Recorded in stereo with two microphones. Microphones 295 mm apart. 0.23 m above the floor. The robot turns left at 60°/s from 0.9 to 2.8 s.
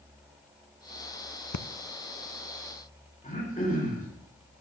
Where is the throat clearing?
25° left (ahead or behind), 3.5 m.